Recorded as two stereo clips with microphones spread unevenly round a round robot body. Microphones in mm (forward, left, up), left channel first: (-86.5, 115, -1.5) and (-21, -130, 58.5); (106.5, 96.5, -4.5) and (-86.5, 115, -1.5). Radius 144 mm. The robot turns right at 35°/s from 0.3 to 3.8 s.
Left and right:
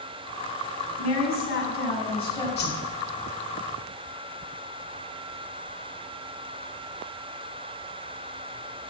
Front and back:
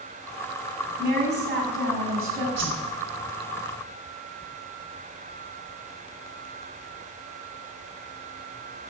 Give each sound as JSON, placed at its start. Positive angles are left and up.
{"t": 1.0, "sound": "a woman speaking", "azimuth_deg": 130, "distance_m": 6.5}
{"t": 2.6, "sound": "a whoosh", "azimuth_deg": 155, "distance_m": 3.0}